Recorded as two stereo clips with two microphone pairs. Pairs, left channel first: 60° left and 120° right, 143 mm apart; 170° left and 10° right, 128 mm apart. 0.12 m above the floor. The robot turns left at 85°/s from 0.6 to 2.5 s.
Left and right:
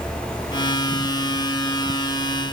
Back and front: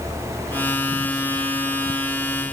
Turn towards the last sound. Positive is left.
No sound to turn to.